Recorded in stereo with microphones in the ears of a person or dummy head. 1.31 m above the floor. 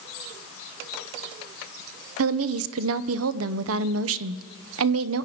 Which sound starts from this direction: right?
A woman speaking, at 2.2 s.